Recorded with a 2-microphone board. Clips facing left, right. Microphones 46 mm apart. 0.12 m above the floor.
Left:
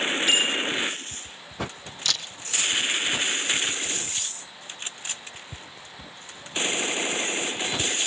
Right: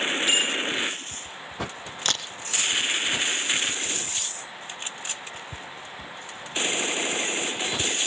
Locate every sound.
0.3 s a bicycle bell: centre (ahead or behind), 8.5 m
2.0 s a camera shutter: 45° right (ahead or behind), 1.1 m